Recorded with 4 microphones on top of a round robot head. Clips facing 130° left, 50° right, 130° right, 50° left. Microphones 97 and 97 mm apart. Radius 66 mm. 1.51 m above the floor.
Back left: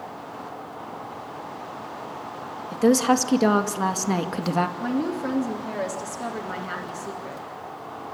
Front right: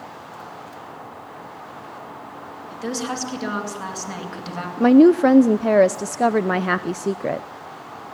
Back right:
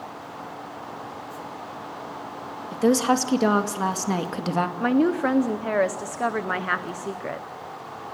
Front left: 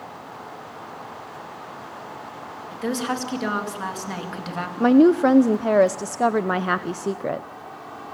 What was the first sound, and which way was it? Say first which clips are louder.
A woman speaking: back left 9 dB, back right 6 dB; 175° left.